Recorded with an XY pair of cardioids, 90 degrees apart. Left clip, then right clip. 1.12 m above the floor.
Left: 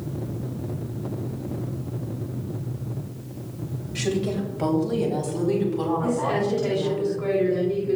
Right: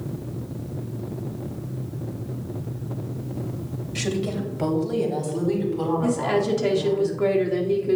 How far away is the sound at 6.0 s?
About 2.5 m.